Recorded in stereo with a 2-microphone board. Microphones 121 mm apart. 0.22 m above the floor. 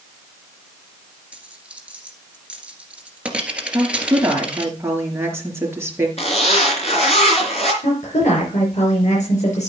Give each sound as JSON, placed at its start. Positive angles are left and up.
{"t": 1.3, "sound": "a dropped coin", "side_deg": -10, "distance_m": 1.9}
{"t": 3.7, "sound": "a woman speaking", "side_deg": -20, "distance_m": 4.0}
{"t": 6.2, "sound": "a zipper", "side_deg": 60, "distance_m": 3.5}
{"t": 7.8, "sound": "a woman speaking", "side_deg": 70, "distance_m": 4.5}